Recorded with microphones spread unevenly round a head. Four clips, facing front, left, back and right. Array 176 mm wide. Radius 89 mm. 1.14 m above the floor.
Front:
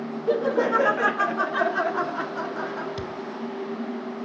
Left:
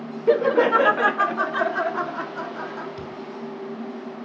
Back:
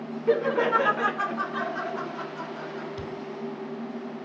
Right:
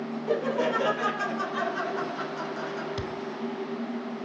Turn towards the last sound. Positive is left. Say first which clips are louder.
# right 1 dB, front 3 dB
turn(degrees=-35)